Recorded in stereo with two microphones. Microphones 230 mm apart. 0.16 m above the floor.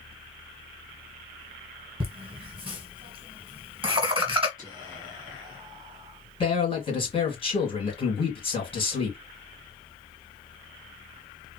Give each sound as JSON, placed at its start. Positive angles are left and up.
{"t": 2.0, "sound": "laughter", "side_deg": -20, "distance_m": 1.3}
{"t": 4.6, "sound": "whispering", "side_deg": -20, "distance_m": 1.5}
{"t": 6.4, "sound": "a man speaking", "side_deg": 25, "distance_m": 1.9}